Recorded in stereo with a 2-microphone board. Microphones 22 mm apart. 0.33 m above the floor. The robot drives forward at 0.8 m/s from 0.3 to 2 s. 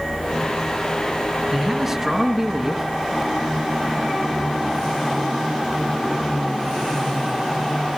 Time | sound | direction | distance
1.5 | a man speaking | 20° right (ahead or behind) | 5 m